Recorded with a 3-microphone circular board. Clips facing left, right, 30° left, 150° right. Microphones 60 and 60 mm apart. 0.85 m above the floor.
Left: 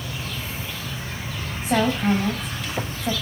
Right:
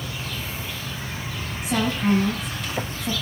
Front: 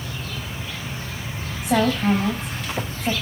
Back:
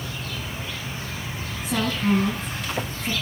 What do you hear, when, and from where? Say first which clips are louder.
1.6 s a woman speaking: left 2 dB, front 5 dB; 40° left, 4 m